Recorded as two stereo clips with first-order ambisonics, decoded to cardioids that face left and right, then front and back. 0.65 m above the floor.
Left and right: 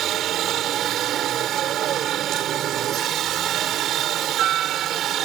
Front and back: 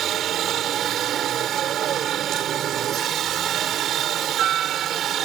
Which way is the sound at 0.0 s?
135° right.